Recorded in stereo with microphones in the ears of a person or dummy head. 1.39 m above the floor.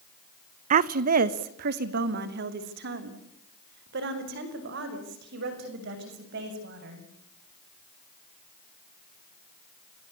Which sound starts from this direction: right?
A woman speaking, at 0.7 s.